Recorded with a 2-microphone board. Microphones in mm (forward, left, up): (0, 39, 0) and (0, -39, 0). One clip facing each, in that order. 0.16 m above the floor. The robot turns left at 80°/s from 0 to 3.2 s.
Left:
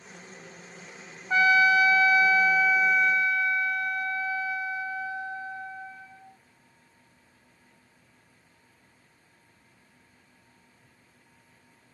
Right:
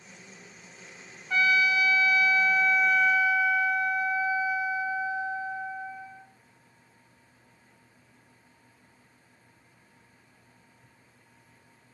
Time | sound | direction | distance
1.3 | a trumpet | 130° left | 1.0 m